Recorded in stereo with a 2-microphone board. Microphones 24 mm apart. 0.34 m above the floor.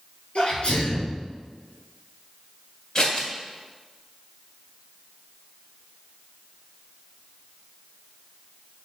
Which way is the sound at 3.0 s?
35° left (ahead or behind).